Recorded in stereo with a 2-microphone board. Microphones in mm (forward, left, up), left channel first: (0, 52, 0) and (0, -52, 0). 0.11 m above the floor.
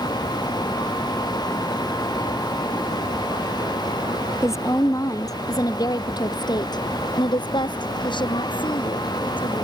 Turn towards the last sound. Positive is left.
turn(degrees=50)  # may be behind; listen again after turning